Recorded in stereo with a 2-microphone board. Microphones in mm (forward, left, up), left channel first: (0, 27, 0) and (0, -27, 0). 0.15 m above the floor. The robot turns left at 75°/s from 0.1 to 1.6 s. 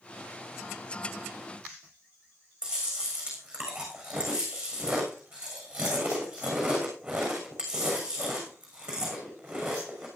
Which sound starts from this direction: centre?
Chewing, at 2.6 s.